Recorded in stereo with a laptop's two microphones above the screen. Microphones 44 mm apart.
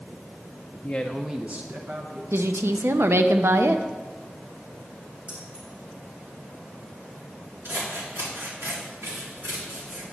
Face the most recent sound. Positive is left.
turn(degrees=-75)  # may be behind; listen again after turning